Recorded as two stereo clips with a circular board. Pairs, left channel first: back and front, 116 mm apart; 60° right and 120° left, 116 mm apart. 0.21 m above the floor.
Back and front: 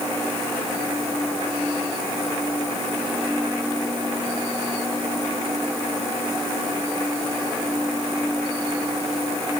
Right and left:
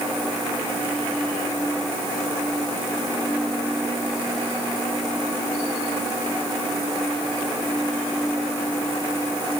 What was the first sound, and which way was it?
Only background noise.